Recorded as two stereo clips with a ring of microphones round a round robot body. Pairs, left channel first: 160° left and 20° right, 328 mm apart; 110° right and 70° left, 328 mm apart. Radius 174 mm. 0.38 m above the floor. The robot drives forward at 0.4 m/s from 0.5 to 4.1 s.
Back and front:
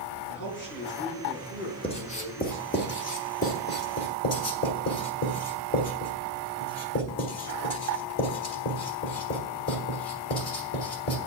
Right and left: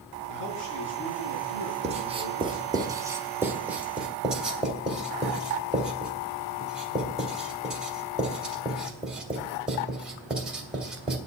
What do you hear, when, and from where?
0.3 s a man speaking: 145° right, 6 m; by 2.8 s 150° right, 7 m
1.8 s writing: 105° left, 1.3 m; by 11.2 s 155° left, 1.7 m